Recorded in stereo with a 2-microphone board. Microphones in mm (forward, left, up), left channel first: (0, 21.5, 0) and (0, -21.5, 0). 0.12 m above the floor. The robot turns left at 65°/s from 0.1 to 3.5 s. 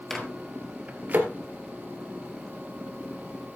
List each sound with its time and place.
0.1 s a microwave: 5° left (ahead or behind), 2.5 m; by 1.3 s 50° right (ahead or behind), 2.5 m